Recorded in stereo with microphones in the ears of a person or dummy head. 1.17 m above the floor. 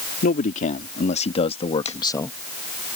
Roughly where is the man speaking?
Left.